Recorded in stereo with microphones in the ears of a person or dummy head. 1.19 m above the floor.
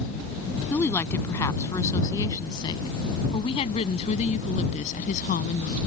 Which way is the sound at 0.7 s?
10° left (ahead or behind).